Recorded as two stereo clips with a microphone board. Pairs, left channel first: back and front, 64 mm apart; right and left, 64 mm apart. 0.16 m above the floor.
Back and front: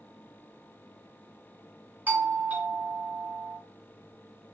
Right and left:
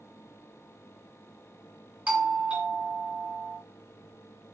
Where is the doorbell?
35° left, 1.7 m.